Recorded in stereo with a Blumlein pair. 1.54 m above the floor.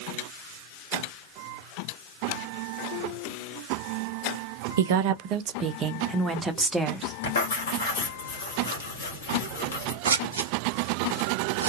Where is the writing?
65° left, 2 m.